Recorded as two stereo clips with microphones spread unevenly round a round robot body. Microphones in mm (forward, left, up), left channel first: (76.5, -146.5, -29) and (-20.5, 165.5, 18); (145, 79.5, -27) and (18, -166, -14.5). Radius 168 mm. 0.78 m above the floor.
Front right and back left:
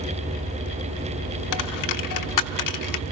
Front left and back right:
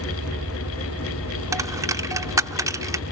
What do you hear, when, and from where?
1.5 s a dropped coin: 40° right, 0.8 m